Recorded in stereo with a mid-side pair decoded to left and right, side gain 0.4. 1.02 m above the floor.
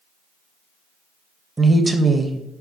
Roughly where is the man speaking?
Ahead right.